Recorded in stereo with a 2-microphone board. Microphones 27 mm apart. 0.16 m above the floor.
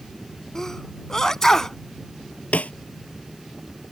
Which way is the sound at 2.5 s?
75° left (ahead or behind).